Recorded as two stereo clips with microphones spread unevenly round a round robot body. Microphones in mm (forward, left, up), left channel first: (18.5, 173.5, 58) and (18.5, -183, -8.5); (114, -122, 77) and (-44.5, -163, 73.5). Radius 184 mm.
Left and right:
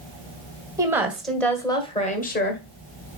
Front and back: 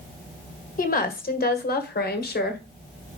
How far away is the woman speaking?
About 1.9 m.